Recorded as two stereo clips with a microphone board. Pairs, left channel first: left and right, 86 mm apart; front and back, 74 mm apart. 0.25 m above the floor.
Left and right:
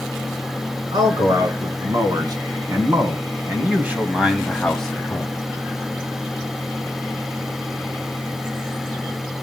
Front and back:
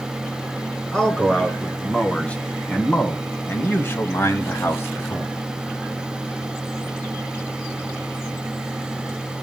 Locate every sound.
0.9 s a man speaking: 80° right, 3.5 m; by 5.3 s 30° left, 1.9 m